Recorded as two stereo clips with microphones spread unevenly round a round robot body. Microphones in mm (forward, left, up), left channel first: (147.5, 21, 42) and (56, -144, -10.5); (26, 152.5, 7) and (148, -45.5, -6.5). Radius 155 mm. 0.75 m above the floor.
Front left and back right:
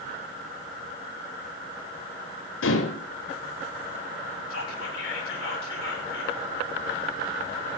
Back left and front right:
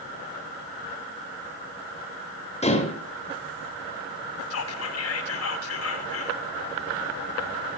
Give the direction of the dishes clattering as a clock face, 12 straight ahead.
10 o'clock.